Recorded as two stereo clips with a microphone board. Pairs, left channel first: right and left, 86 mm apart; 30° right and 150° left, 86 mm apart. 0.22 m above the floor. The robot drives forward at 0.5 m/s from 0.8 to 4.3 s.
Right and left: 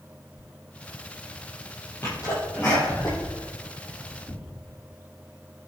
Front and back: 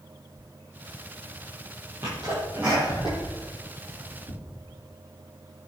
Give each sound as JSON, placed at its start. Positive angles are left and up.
{"t": 2.0, "sound": "a sneeze", "azimuth_deg": -155, "distance_m": 6.5}